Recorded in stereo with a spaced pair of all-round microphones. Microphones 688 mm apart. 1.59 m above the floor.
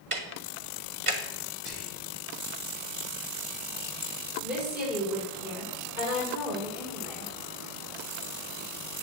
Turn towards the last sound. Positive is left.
turn(degrees=0)  # may be behind; listen again after turning